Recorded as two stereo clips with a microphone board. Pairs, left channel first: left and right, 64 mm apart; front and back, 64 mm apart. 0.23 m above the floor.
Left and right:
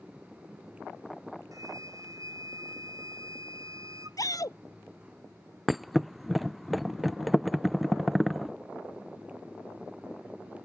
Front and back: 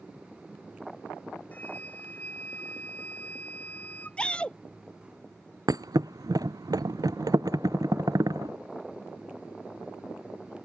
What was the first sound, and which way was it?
A flute, 65° right.